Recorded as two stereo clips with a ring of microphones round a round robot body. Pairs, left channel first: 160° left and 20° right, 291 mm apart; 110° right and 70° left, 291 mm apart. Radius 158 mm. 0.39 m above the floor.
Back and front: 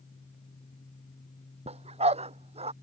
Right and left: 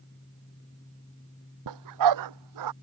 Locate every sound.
1.7 s a dog barking: 50° left